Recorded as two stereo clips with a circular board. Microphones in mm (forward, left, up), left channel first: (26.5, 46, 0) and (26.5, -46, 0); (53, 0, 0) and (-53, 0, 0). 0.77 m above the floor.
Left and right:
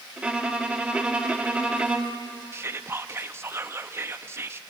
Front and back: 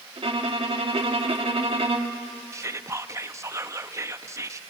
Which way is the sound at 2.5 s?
135° right.